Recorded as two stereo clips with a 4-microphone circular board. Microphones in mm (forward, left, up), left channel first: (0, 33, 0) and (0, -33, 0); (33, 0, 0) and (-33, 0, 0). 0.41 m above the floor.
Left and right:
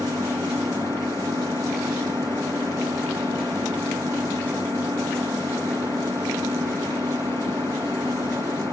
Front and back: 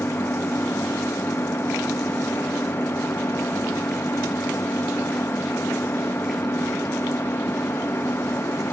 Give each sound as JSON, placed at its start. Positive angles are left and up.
{"t": 0.0, "sound": "an engine running", "azimuth_deg": -50}